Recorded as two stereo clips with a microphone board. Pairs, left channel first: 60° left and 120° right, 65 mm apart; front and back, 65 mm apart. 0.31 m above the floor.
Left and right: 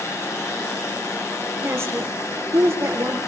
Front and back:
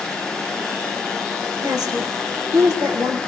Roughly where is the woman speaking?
Behind.